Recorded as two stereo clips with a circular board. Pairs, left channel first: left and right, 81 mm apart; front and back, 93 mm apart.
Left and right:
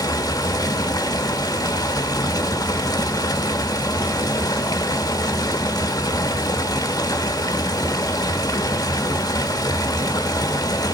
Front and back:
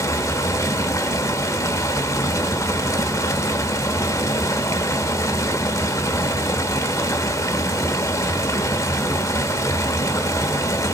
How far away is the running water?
About 1.1 m.